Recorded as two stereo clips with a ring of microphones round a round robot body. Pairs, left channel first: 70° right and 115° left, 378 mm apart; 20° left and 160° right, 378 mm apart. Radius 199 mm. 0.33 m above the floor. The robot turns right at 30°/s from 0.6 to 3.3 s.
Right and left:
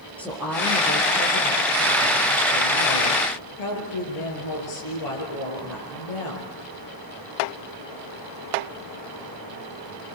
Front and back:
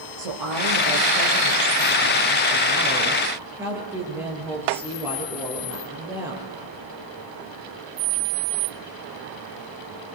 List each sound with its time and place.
0.2 s a woman speaking: 155° right, 8 m; by 6.5 s 75° right, 8 m